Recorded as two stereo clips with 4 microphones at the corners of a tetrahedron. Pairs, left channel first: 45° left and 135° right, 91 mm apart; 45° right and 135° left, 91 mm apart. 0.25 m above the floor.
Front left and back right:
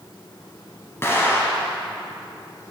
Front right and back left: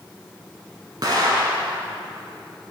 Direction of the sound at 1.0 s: 105° left.